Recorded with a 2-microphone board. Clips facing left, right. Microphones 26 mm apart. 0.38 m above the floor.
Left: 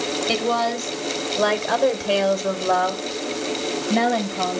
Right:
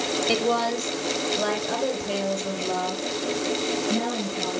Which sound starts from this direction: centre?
A woman speaking, at 0.3 s.